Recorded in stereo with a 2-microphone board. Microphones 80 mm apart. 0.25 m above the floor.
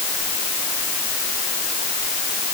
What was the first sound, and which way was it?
Only background noise.